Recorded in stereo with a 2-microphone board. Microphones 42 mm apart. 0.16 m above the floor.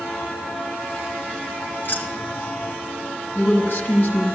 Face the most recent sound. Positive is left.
turn(degrees=45)  # may be behind; listen again after turning